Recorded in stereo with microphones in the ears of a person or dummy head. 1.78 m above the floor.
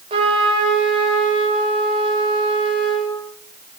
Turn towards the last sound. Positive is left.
turn(degrees=-25)  # may be behind; listen again after turning